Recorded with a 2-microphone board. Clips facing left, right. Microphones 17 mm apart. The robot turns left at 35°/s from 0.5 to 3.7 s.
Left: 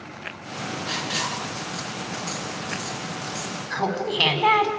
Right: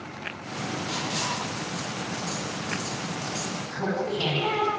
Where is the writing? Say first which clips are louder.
Left 3 dB; 65° left (ahead or behind), 6 m; by 3.6 s 25° right (ahead or behind), 6 m.